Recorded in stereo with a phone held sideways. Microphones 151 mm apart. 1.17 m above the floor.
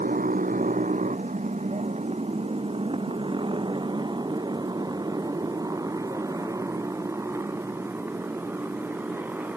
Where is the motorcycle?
65° right (ahead or behind); by 9.6 s 10° right (ahead or behind).